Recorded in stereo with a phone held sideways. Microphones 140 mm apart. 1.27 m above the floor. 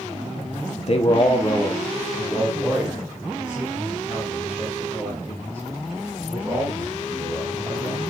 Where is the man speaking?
55° left (ahead or behind), 0.7 m; by 8.0 s 15° right (ahead or behind), 7 m.